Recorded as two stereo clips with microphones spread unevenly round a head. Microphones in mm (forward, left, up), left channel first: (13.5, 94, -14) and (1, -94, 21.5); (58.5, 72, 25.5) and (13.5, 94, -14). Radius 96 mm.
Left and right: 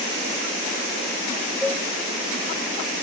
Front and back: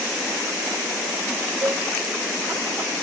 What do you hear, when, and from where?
1.6 s a cowbell: straight behind, 0.6 m